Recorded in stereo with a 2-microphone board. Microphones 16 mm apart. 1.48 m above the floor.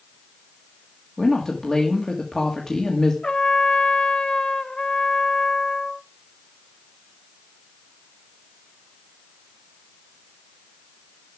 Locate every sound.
1.2 s a woman speaking: 40° left (ahead or behind), 2.5 m
3.2 s a trumpet: 70° left (ahead or behind), 1.0 m